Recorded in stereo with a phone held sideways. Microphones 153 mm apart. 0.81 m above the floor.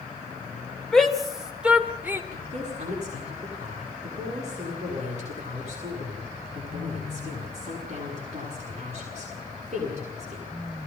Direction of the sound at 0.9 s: 5° left (ahead or behind).